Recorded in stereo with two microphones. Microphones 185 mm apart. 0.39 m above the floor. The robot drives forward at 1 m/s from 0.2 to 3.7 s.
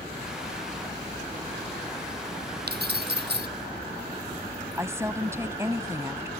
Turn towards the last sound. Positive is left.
turn(degrees=-15)  # may be behind; listen again after turning